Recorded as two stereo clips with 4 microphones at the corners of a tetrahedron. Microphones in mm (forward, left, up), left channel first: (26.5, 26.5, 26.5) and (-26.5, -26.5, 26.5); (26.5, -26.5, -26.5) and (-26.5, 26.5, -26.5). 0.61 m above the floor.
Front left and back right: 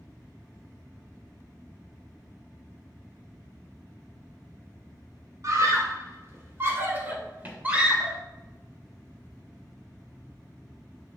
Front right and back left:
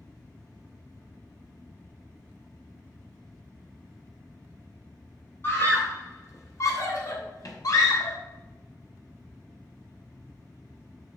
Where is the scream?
100° right, 2.5 m; by 8.2 s 60° right, 3 m.